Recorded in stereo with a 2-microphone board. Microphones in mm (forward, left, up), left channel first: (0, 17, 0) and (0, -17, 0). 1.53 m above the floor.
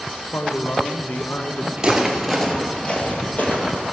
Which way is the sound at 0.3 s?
75° left (ahead or behind).